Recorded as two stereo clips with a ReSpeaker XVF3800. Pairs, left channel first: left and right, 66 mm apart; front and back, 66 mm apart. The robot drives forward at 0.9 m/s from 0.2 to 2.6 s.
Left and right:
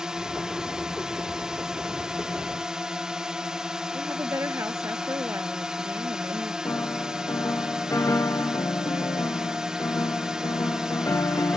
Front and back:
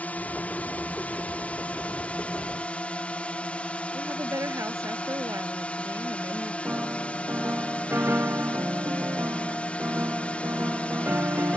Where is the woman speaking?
135° right.